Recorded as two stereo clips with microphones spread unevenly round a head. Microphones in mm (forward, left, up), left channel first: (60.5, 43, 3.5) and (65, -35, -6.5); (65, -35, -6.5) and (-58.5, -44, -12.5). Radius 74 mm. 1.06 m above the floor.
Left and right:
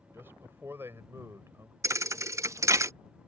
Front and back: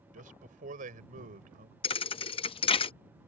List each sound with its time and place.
0.1 s a man speaking: 160° right
1.8 s a thud: 35° right